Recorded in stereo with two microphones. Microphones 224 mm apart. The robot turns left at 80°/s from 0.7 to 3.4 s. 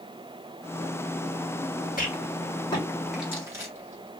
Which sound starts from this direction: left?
A rattle, at 2.0 s.